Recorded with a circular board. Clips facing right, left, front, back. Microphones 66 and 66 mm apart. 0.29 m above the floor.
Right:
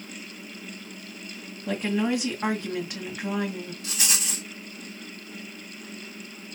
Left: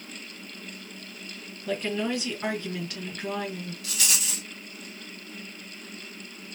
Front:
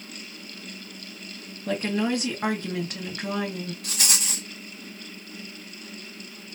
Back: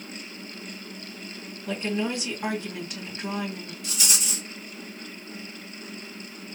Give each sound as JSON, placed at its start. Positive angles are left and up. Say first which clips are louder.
{"t": 1.7, "sound": "a woman speaking", "louder": "right 3 dB, front 3 dB", "azimuth_deg": -25, "distance_m": 2.5}
{"t": 3.8, "sound": "a rattle", "louder": "even, front 1 dB", "azimuth_deg": -30, "distance_m": 2.0}